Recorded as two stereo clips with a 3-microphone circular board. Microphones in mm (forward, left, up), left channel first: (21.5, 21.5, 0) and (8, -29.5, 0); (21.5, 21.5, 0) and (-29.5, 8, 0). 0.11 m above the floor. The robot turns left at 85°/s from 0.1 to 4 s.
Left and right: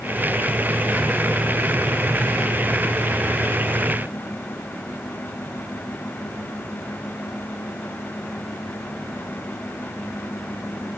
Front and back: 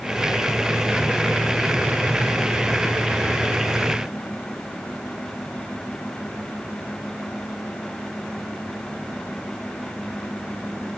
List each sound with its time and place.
Only background noise.